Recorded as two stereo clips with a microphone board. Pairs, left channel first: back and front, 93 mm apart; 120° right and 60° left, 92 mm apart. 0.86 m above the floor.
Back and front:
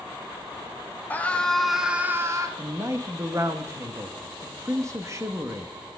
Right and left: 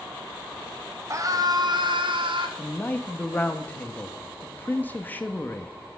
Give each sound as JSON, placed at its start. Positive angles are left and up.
{"t": 1.1, "sound": "a scream", "azimuth_deg": 110, "distance_m": 1.4}
{"t": 2.6, "sound": "a man speaking", "azimuth_deg": -50, "distance_m": 0.8}